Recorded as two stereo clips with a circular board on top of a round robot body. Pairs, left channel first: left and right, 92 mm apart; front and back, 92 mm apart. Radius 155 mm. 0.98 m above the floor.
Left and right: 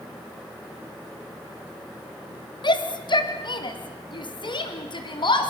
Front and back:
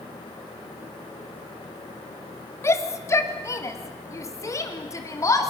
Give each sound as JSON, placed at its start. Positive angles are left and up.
{"t": 2.6, "sound": "a shout", "azimuth_deg": 60, "distance_m": 2.0}